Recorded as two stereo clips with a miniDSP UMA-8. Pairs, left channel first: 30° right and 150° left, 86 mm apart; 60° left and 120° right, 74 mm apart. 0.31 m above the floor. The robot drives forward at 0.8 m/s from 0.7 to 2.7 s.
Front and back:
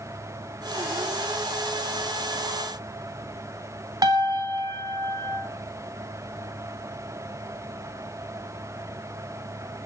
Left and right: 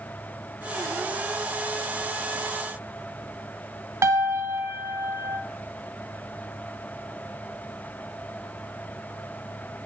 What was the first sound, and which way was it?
A piano, 170° right.